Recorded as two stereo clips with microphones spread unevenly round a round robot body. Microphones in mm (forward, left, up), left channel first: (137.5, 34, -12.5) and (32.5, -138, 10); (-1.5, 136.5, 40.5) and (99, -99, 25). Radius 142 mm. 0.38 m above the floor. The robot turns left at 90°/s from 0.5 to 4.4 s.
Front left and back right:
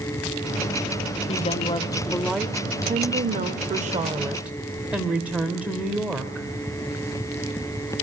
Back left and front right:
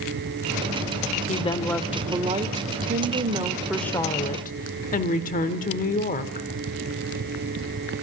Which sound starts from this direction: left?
A woman speaking, at 1.3 s.